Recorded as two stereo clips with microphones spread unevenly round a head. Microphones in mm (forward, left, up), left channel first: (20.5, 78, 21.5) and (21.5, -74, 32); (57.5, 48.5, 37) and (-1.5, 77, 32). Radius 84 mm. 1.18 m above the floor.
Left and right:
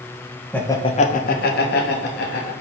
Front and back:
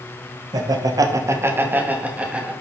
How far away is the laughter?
About 1.2 m.